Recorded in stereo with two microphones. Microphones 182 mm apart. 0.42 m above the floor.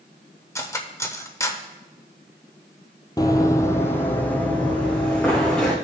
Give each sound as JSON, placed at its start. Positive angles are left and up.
{"t": 0.6, "sound": "cutlery clinking", "side_deg": 15, "distance_m": 0.6}
{"t": 3.2, "sound": "running footsteps", "side_deg": 20, "distance_m": 0.6}